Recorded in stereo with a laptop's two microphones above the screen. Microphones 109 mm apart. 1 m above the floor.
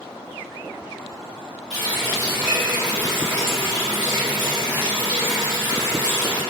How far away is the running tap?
About 1.8 m.